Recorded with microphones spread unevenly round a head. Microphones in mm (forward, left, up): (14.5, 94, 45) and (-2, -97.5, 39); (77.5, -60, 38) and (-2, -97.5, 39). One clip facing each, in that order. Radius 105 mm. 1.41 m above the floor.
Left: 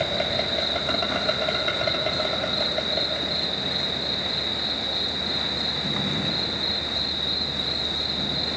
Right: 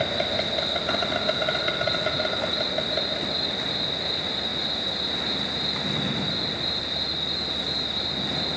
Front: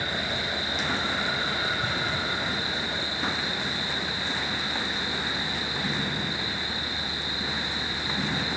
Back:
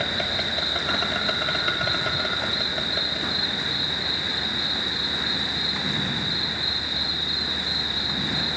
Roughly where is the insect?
Behind.